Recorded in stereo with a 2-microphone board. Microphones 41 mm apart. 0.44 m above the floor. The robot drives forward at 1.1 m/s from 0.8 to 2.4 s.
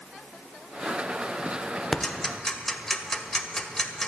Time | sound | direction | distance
1.9 | ticking | 15° left (ahead or behind) | 1.1 m